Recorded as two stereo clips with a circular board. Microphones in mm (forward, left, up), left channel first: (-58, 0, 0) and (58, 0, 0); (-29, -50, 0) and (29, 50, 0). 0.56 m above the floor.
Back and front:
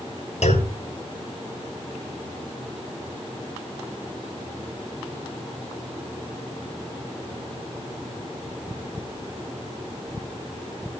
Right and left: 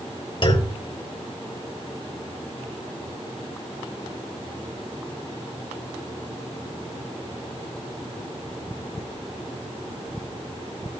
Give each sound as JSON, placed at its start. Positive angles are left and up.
{"t": 0.4, "sound": "a clunk", "azimuth_deg": -165, "distance_m": 4.5}